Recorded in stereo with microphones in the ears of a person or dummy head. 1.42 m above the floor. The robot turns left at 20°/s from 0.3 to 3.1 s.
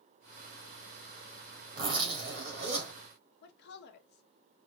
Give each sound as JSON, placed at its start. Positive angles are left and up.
{"t": 1.8, "sound": "a zipper", "side_deg": -25, "distance_m": 1.7}
{"t": 3.4, "sound": "a woman speaking", "side_deg": 60, "distance_m": 0.9}